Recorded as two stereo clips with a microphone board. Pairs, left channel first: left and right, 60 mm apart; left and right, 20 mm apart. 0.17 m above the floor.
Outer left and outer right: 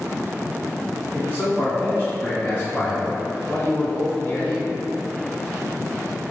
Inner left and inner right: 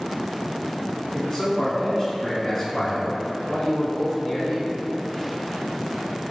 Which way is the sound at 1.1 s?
35° left (ahead or behind).